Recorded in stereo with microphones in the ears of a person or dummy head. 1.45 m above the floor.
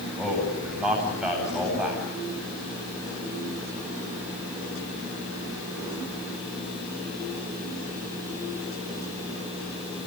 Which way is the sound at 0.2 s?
Centre (ahead or behind).